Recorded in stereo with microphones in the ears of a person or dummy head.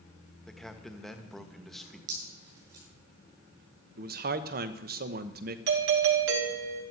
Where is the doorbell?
70° right (ahead or behind), 2.5 m.